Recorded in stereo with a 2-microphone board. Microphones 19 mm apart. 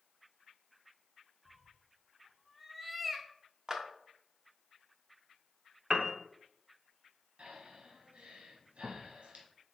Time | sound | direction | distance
1.4 | a cat meowing | 10° right (ahead or behind) | 0.5 m
3.7 | a clap | 30° right (ahead or behind) | 0.8 m
5.9 | a piano | 35° right (ahead or behind) | 0.6 m
7.4 | breathing | 75° right (ahead or behind) | 1.5 m